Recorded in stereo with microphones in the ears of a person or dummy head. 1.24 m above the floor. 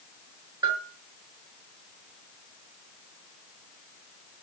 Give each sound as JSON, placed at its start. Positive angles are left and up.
{"t": 0.6, "sound": "a bell", "side_deg": -20, "distance_m": 5.0}